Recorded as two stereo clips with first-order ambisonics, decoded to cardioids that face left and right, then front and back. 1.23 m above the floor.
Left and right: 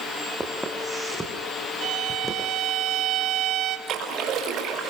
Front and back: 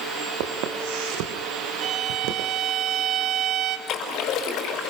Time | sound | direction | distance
0.4 | footsteps | 175° right | 4 m
1.8 | a violin | 130° right | 1.7 m
3.9 | a splash | 40° right | 5 m